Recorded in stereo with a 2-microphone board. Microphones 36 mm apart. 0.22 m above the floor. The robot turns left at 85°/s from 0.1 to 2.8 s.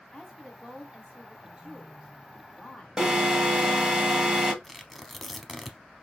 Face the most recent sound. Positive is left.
turn(degrees=5)  # may be behind; listen again after turning